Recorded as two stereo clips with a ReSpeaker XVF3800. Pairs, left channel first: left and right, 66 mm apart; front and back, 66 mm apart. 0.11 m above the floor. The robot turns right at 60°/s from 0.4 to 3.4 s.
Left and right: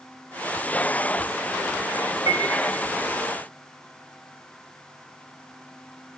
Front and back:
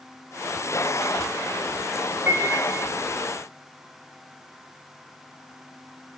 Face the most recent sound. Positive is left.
turn(degrees=-50)